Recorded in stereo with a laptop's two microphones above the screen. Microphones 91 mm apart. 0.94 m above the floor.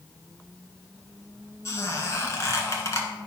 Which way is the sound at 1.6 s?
35° left (ahead or behind).